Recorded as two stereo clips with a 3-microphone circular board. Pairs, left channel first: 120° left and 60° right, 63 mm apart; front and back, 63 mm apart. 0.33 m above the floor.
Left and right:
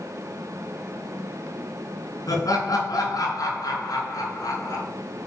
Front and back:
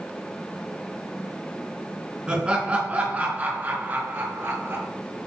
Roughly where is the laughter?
Left.